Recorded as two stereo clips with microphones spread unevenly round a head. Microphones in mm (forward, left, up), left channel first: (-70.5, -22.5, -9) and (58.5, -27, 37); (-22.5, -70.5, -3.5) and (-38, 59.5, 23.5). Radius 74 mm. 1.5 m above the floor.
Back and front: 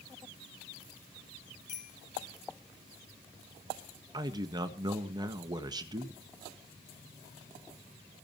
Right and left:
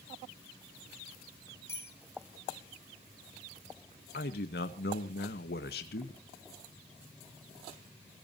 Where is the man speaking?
60° right, 1.7 m.